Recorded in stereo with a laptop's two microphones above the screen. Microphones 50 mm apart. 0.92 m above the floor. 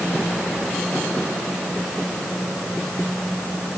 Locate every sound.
Only background noise.